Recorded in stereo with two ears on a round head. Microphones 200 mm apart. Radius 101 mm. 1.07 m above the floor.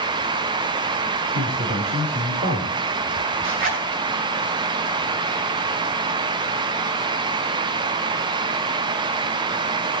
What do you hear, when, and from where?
1.3 s a man speaking: 55° right (ahead or behind), 5.5 m; by 2.8 s 45° right (ahead or behind), 4.5 m
3.4 s a zipper: 65° right (ahead or behind), 8.5 m